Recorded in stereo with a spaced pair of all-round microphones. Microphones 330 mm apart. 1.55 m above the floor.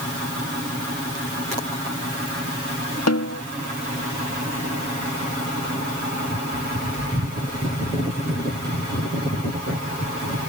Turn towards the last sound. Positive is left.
turn(degrees=55)  # may be behind; listen again after turning